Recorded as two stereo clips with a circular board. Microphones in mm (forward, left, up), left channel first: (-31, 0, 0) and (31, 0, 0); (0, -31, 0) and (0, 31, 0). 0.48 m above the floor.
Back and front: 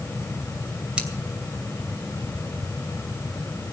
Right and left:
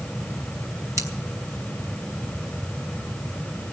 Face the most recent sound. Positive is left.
turn(degrees=70)